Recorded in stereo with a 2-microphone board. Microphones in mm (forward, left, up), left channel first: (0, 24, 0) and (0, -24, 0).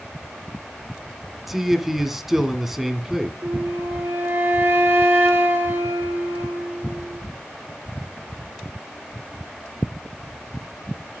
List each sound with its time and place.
1.5 s a man speaking: 5° right (ahead or behind), 1.8 m
3.4 s a flute: 55° right (ahead or behind), 3 m